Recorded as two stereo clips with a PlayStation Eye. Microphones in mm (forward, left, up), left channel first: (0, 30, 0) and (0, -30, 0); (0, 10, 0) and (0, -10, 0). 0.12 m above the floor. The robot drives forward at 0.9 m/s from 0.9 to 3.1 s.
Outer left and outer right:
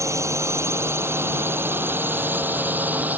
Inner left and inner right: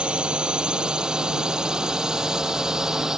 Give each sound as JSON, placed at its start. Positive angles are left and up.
{"t": 0.0, "sound": "a drone", "side_deg": -55}